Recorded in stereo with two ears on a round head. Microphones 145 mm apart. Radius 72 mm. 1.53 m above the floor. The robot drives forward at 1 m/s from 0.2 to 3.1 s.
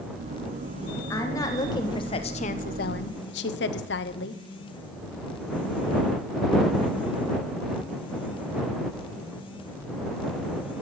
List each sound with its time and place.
1.1 s a woman speaking: 20° left (ahead or behind), 2 m; by 4.4 s 75° left (ahead or behind), 0.7 m